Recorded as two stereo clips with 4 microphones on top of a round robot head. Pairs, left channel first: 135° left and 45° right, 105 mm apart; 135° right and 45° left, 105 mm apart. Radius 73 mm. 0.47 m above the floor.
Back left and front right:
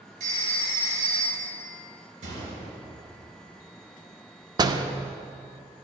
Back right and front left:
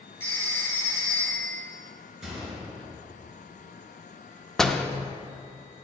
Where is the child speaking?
I don't hear a child speaking.